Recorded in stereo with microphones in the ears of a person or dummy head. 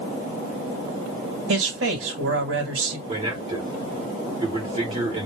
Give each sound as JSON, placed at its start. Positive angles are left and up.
{"t": 1.5, "sound": "a man speaking", "side_deg": -85, "distance_m": 1.9}
{"t": 3.1, "sound": "a man speaking", "side_deg": -35, "distance_m": 2.0}